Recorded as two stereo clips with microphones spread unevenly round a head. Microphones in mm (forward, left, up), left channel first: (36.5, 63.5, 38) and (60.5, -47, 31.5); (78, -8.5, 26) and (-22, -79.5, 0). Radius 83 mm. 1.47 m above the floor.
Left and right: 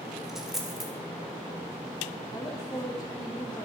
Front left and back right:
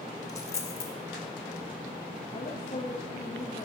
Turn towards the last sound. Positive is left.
turn(degrees=10)